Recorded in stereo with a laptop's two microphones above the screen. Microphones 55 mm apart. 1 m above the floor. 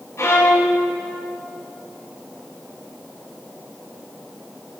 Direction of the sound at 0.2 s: 55° left (ahead or behind).